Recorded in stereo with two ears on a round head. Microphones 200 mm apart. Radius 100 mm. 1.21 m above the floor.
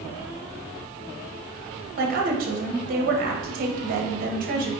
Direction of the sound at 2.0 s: 45° right (ahead or behind).